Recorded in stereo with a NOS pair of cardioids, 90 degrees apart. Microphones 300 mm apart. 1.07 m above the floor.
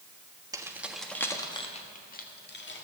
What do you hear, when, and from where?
0.5 s keys jangling: 10° right, 1.3 m; by 2.9 s 40° left, 1.8 m